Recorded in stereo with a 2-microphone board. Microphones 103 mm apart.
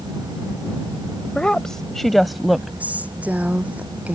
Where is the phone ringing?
No phone ringing in this recording.